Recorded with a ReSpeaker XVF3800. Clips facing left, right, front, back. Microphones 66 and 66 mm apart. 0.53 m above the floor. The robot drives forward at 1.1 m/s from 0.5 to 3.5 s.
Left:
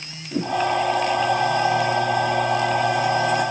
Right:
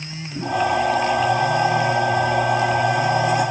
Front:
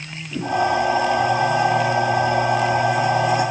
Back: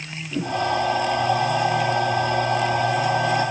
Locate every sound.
0.3 s a whoosh: 85° left, 6.5 m